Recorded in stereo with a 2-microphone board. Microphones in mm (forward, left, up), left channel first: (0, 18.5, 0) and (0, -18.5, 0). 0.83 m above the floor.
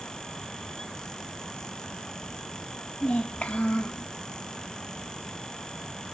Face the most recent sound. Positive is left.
turn(degrees=40)  # may be behind; listen again after turning